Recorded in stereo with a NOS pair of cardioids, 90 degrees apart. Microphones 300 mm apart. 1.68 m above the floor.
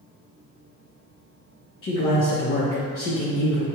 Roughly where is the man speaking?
Ahead left.